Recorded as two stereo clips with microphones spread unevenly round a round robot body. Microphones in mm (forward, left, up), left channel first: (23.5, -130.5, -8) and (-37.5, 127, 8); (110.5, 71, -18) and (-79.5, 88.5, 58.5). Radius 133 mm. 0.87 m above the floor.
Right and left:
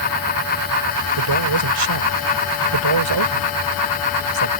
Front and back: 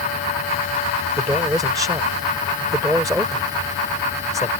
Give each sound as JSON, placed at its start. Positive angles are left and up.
{"t": 1.2, "sound": "a man speaking", "azimuth_deg": 95}